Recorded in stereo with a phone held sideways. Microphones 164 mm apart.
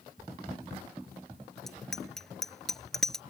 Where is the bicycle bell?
Centre (ahead or behind).